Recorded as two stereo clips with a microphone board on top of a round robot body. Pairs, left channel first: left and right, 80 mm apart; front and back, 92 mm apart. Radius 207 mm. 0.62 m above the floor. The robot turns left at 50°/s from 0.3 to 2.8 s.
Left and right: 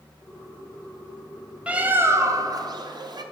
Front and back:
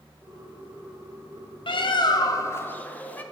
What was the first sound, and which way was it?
A bird, 15° right.